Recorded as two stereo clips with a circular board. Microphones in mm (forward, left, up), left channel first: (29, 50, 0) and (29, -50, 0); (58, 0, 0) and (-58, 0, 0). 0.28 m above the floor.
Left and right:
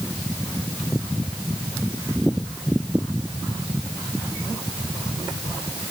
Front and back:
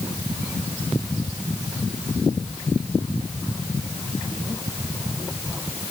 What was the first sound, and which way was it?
Only background noise.